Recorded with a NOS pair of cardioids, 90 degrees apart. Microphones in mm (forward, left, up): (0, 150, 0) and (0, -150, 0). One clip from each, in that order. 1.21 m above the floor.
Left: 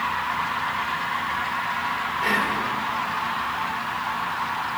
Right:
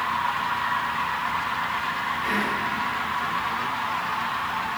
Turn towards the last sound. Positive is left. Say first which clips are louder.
# left 4 dB
turn(degrees=65)